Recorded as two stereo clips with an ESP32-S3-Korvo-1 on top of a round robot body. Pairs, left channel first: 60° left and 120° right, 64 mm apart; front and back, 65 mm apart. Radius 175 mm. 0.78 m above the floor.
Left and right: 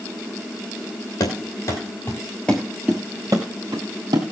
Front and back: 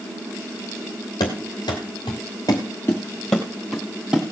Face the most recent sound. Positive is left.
turn(degrees=-105)